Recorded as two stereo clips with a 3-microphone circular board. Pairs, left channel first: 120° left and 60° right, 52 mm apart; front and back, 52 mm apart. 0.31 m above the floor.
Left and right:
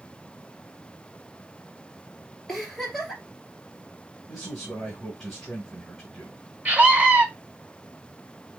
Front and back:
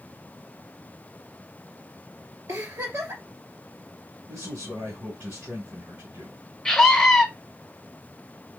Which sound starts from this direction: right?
A scream, at 6.7 s.